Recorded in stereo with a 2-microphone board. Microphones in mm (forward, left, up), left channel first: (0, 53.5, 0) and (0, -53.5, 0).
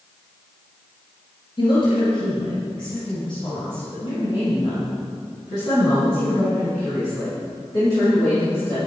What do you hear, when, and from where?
1.6 s a woman speaking: 50° left (ahead or behind), 2.5 m; by 8.8 s 40° left (ahead or behind), 7 m